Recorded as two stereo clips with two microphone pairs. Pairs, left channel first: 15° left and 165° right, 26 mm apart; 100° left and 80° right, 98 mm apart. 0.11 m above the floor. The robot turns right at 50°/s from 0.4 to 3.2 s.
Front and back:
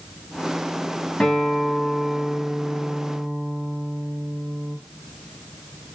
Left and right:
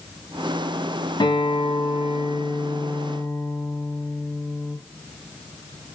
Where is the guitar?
75° left, 3.5 m; by 4.8 s 175° left, 3.5 m.